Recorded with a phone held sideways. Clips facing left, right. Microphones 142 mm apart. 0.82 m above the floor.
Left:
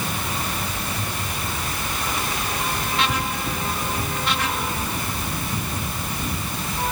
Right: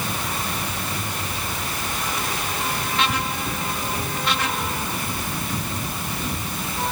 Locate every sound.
Only background noise.